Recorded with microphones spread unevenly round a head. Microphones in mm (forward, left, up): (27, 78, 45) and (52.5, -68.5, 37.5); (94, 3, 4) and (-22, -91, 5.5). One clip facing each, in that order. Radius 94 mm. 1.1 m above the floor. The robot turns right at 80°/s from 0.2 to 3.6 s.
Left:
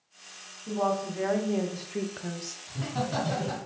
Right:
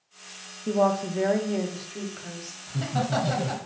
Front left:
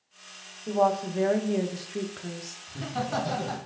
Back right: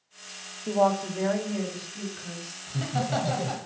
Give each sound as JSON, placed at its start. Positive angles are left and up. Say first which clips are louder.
{"t": 0.7, "sound": "a woman speaking", "louder": "right 5 dB, back right 1 dB", "azimuth_deg": -70, "distance_m": 0.6}
{"t": 2.7, "sound": "laughter", "louder": "right 4 dB, back right 2 dB", "azimuth_deg": -130, "distance_m": 1.3}